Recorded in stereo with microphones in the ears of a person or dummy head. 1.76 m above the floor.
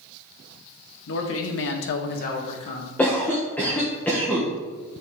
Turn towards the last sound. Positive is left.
turn(degrees=10)  # may be behind; listen again after turning